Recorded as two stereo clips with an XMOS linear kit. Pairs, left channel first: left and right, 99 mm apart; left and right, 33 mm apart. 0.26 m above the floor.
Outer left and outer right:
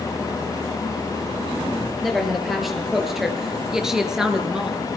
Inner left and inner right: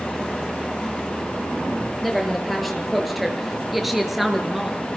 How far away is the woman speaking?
About 5 m.